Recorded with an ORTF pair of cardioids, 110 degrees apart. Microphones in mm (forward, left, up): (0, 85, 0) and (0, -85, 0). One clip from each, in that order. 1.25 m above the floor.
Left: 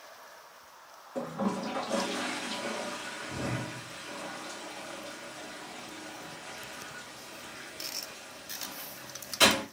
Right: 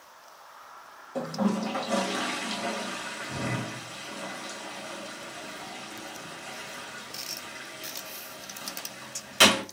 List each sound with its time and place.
1.1 s a toilet flushing: 50° right, 1.1 m